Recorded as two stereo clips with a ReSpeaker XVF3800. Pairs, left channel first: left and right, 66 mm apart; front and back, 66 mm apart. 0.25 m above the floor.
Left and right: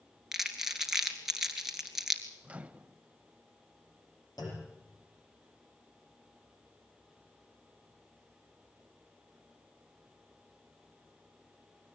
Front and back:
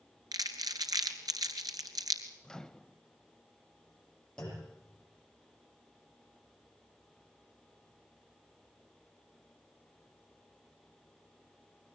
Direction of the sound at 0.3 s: 170° right.